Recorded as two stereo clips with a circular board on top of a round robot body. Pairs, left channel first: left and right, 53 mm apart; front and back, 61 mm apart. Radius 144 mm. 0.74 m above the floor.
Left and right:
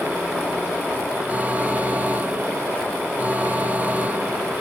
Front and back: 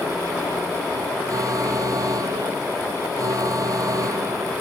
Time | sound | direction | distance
1.3 | an alarm | 150° right | ?